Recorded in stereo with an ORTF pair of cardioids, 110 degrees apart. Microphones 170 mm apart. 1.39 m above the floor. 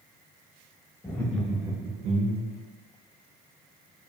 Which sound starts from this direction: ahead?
Laughter, at 1.0 s.